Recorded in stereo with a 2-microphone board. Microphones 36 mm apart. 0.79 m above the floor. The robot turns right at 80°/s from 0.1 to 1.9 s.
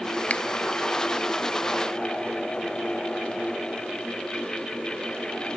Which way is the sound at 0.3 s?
40° left (ahead or behind).